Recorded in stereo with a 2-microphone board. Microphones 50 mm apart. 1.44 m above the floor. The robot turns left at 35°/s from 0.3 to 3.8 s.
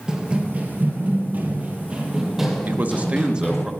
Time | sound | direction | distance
0.1 | running footsteps | 20° right (ahead or behind) | 1.7 m
2.7 | a man speaking | 135° right | 1.1 m